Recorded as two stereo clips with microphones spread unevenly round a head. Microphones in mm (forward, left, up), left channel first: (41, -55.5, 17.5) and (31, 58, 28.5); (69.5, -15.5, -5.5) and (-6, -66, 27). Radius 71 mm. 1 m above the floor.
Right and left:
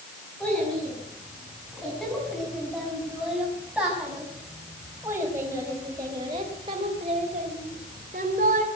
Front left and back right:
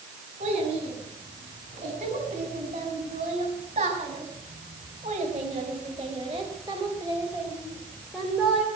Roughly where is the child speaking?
Behind.